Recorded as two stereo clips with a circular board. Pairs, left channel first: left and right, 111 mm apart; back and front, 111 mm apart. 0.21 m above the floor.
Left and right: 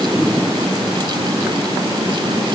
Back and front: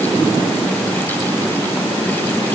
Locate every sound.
Only background noise.